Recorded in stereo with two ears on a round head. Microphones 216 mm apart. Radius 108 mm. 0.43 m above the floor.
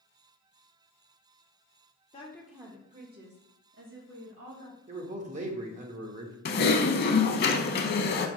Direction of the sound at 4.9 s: 30° right (ahead or behind).